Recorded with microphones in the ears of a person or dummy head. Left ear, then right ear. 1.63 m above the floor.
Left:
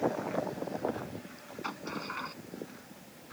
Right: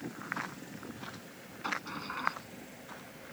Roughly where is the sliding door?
Centre.